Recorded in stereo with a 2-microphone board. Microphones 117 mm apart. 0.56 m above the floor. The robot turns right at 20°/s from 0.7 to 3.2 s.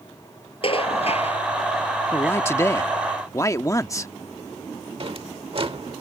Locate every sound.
0.6 s dishes clattering: 50° left (ahead or behind); by 1.4 s 65° left (ahead or behind)
2.1 s a man speaking: 20° left (ahead or behind); by 4.1 s 25° left (ahead or behind)
5.0 s a drawer: 50° right (ahead or behind)